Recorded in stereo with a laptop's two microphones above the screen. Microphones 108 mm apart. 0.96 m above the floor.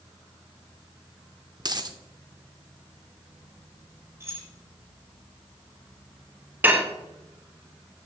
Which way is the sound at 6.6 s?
20° right (ahead or behind).